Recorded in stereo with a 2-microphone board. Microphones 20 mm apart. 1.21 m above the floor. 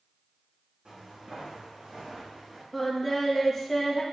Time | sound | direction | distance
0.8 | footsteps | 50° right (ahead or behind) | 3 m
2.7 | singing | 5° left (ahead or behind) | 1.0 m